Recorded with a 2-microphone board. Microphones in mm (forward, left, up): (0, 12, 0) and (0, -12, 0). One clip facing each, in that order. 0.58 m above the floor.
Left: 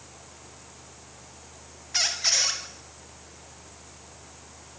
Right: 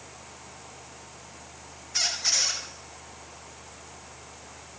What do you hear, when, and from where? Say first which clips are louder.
1.9 s a squeak: left 1 dB; 45° left (ahead or behind), 6.5 m